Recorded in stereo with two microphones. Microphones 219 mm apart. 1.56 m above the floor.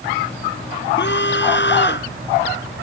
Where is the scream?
55° left (ahead or behind).